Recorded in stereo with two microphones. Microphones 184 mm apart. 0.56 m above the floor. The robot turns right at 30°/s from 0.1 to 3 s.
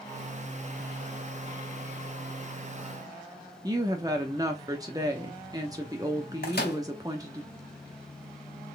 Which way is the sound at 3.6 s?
20° right (ahead or behind).